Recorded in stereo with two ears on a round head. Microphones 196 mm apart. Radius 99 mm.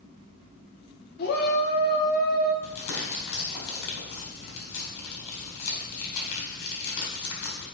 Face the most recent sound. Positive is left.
turn(degrees=75)  # may be behind; listen again after turning